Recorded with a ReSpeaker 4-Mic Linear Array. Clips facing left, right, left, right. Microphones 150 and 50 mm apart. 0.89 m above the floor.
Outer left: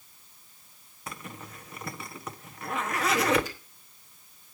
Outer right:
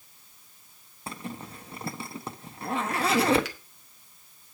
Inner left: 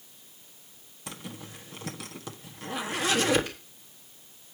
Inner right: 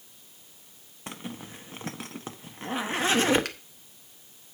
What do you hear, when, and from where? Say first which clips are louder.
1.1 s a zipper: outer right 4 dB, inner right 3 dB; 30° right (ahead or behind), 1.2 m
3.5 s a finger snap: outer right 1 dB, inner right 3 dB; 75° right (ahead or behind), 1.6 m